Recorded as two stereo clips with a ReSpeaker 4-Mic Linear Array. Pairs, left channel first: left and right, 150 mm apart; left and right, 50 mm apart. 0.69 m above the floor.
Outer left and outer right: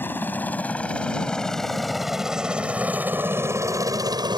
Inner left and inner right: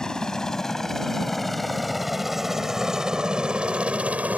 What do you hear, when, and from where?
0.0 s a helicopter: 10° left (ahead or behind); by 4.4 s 30° right (ahead or behind)